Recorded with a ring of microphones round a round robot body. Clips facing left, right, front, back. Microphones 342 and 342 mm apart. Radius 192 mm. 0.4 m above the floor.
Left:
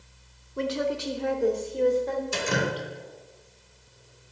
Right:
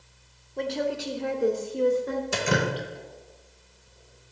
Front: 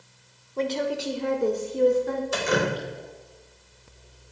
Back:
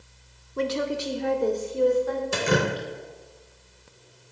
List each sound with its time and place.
0.6 s a woman speaking: 145° left, 0.8 m; by 2.2 s 30° right, 1.0 m
2.3 s dripping: 125° right, 0.7 m